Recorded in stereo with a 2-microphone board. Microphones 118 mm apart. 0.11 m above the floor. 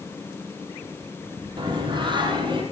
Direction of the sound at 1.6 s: 40° right (ahead or behind).